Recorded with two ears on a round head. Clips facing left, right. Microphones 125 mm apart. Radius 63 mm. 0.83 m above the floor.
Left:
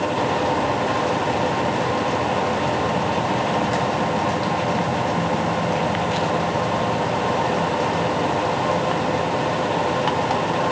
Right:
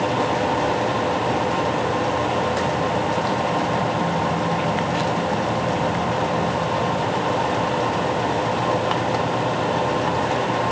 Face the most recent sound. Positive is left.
No sound to turn to.